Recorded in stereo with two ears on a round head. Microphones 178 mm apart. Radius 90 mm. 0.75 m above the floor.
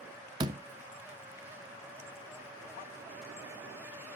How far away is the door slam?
About 0.5 m.